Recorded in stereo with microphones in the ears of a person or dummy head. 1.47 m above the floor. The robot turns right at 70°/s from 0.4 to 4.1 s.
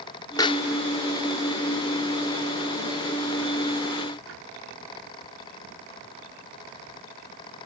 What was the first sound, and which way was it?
A pop, 20° left (ahead or behind).